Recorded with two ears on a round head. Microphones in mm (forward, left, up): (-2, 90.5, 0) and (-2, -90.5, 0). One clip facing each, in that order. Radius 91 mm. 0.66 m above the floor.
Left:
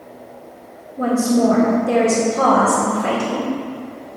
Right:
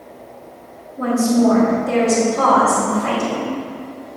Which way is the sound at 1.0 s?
35° left (ahead or behind).